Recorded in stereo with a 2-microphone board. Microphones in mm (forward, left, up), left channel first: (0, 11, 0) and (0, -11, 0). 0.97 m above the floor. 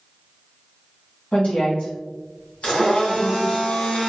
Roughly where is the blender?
Left.